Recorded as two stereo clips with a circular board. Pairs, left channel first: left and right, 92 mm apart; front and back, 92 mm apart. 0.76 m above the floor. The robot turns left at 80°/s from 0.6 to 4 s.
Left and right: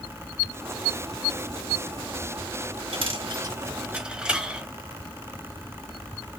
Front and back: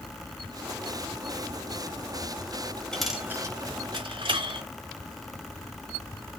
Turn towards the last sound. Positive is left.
turn(degrees=-170)